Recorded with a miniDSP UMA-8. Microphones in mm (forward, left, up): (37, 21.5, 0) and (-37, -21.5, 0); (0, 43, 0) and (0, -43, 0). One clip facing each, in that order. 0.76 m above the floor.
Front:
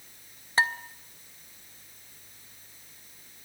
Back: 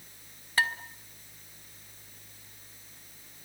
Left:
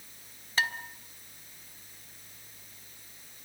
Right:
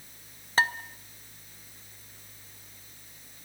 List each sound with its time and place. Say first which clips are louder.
0.6 s dishes clattering: front 3 dB, right 5 dB; 35° right, 1.3 m